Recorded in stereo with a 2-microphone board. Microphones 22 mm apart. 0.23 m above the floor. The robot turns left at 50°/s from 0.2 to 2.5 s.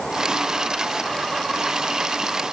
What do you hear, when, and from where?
Only background noise.